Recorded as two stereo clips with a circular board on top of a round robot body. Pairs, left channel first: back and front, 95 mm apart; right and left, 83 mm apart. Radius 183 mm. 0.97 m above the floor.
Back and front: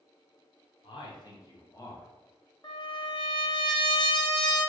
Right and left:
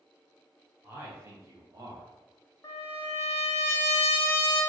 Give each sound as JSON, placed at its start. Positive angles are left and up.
{"t": 0.8, "sound": "a man speaking", "azimuth_deg": 155, "distance_m": 1.1}
{"t": 2.6, "sound": "a trumpet", "azimuth_deg": -140, "distance_m": 1.4}